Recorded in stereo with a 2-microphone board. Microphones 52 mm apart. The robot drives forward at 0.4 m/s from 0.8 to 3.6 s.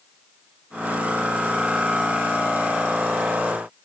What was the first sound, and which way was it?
Only background noise.